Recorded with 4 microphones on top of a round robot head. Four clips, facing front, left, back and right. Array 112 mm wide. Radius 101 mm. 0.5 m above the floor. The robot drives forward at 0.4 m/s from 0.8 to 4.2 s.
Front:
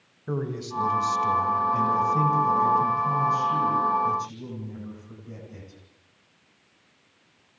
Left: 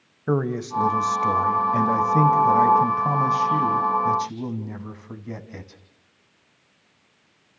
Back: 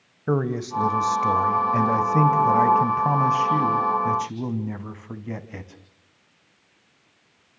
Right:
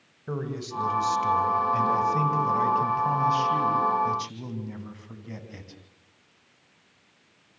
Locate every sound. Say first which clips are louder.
0.3 s a man speaking: left 9 dB, back 7 dB; 135° left, 2.5 m; by 5.8 s 150° left, 3.5 m